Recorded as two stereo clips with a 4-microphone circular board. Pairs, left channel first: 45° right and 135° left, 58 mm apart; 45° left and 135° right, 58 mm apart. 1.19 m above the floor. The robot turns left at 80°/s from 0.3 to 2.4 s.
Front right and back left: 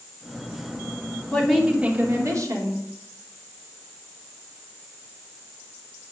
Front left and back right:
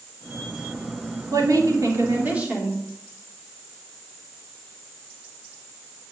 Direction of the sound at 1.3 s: 115° right.